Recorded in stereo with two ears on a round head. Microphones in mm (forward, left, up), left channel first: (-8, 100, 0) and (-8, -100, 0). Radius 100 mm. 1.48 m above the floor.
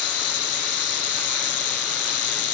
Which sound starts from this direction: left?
An insect, at 0.0 s.